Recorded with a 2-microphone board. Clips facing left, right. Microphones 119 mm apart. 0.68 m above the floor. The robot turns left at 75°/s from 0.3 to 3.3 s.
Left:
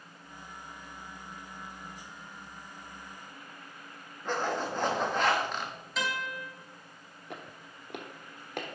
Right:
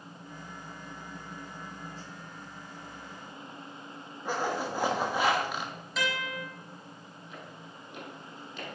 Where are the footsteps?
65° left (ahead or behind), 1.4 m.